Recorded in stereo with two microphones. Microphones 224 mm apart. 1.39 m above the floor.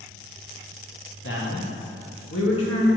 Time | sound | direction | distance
1.2 | a man speaking | 65° left (ahead or behind) | 1.6 m